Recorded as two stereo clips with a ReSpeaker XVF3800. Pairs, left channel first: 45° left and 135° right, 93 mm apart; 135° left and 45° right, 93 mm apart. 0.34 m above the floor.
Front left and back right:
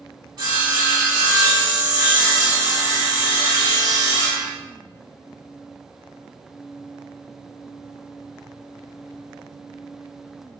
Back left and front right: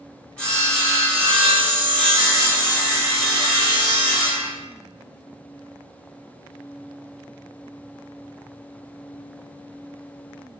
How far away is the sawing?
About 1.9 m.